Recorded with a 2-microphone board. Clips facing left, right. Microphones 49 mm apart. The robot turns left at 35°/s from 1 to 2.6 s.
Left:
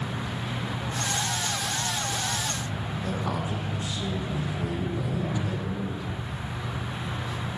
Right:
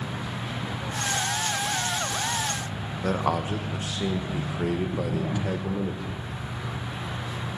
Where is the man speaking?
70° right (ahead or behind), 1.8 m.